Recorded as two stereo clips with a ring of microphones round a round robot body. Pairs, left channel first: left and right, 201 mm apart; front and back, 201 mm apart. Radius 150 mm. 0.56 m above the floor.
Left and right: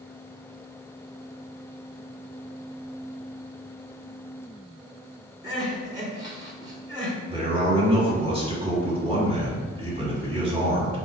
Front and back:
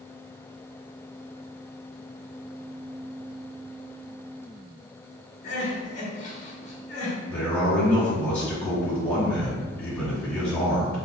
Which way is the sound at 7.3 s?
75° right.